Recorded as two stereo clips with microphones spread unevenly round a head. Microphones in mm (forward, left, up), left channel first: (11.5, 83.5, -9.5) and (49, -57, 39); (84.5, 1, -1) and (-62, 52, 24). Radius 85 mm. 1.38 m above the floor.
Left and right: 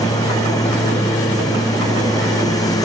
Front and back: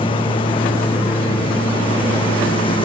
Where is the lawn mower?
40° left.